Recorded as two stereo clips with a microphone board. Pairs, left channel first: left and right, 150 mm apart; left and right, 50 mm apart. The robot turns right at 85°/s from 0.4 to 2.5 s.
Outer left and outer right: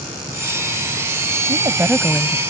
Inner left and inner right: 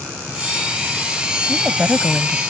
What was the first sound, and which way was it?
A woman speaking, 40° right.